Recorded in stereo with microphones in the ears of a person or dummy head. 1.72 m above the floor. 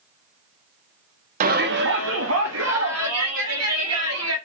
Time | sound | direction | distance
1.4 | a shout | 50° right (ahead or behind) | 0.5 m